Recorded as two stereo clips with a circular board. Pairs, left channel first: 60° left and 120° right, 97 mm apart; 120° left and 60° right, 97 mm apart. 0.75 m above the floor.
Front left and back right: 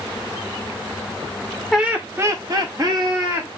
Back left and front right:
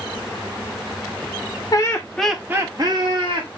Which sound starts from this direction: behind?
Laughter, at 1.7 s.